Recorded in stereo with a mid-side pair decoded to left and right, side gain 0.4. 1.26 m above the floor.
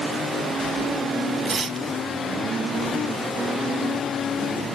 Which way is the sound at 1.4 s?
55° right.